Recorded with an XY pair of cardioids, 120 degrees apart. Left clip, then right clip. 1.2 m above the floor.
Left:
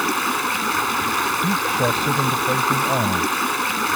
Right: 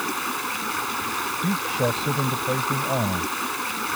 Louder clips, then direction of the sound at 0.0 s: Left 6 dB; 35° left.